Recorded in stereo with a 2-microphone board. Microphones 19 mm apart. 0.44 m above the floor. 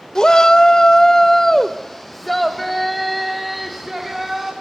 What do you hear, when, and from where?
0.1 s a shout: 40° left (ahead or behind), 1.2 m; by 4.5 s 10° right (ahead or behind), 4 m